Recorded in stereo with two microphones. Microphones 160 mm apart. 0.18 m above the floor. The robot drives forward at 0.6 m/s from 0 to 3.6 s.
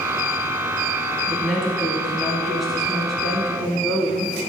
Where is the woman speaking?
Centre (ahead or behind), 1.2 m.